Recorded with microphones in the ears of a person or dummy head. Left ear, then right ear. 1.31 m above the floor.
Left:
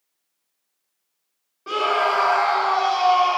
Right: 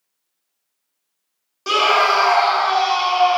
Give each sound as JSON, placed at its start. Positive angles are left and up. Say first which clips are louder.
{"t": 1.7, "sound": "a scream", "louder": "right 5 dB", "side_deg": -85, "distance_m": 0.6}